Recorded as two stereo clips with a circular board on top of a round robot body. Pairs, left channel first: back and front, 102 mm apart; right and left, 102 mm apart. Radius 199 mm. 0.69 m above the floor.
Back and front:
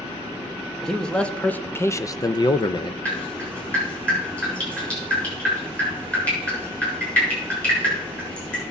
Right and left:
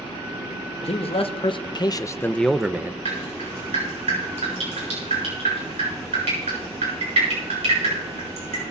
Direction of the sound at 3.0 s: 100° left.